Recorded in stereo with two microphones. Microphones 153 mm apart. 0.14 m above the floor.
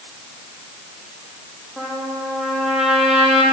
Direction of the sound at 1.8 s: Centre (ahead or behind).